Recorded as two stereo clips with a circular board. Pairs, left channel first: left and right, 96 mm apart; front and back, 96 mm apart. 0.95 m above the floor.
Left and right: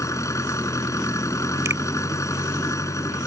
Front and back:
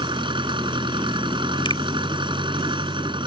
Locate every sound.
0.0 s an engine running: 145° left
1.6 s a finger snap: 30° right